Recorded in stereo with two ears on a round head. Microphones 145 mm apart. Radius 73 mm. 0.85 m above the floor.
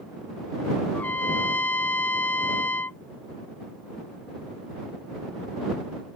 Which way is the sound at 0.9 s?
10° left (ahead or behind).